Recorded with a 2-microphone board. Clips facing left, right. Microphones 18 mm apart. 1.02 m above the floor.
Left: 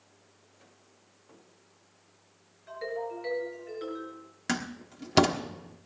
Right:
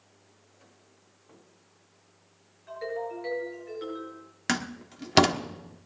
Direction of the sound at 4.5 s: 30° right (ahead or behind).